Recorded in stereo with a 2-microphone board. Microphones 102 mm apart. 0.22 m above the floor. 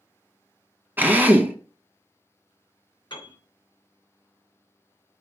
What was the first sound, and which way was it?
A drill, 20° right (ahead or behind).